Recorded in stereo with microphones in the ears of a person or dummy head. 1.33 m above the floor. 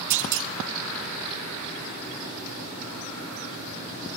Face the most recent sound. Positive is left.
turn(degrees=-70)  # may be behind; listen again after turning